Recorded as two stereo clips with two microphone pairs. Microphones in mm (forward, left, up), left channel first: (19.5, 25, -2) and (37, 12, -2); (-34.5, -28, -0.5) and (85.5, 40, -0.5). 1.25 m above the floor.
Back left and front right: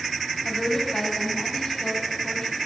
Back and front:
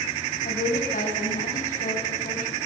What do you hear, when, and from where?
0.5 s a woman speaking: 155° right, 7 m